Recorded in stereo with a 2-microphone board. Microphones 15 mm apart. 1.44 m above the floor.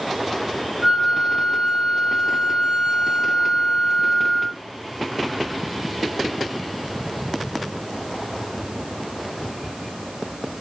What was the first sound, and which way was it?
A flute, 45° right (ahead or behind).